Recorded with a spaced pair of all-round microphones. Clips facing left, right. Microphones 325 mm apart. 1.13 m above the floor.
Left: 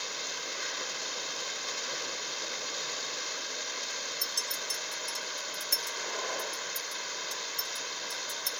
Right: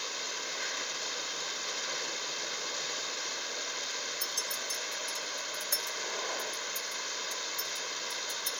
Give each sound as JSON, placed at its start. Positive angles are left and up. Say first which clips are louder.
{"t": 4.2, "sound": "a clink", "louder": "even", "side_deg": 40, "distance_m": 0.8}